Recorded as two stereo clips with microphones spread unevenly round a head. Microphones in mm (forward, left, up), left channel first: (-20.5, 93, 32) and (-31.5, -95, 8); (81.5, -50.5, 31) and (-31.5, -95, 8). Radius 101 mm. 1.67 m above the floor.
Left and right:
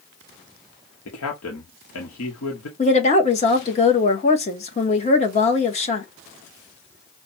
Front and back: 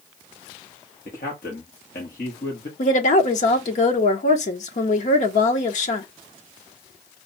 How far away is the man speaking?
About 1.1 m.